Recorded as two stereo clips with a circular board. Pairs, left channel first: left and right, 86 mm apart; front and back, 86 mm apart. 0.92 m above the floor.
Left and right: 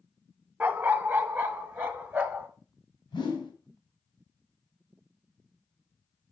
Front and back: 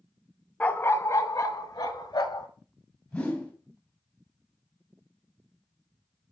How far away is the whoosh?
About 1.9 m.